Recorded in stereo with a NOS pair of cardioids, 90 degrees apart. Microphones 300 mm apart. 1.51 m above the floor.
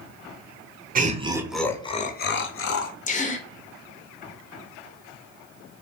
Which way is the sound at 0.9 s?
30° right.